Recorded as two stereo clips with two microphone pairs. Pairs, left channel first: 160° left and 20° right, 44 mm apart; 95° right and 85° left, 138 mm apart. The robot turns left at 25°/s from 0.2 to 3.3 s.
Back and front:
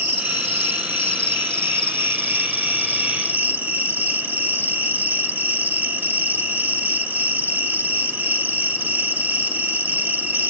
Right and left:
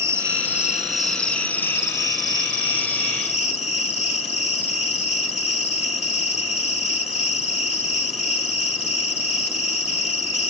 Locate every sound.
0.0 s an insect: 20° left, 1.9 m; by 10.5 s 60° right, 1.9 m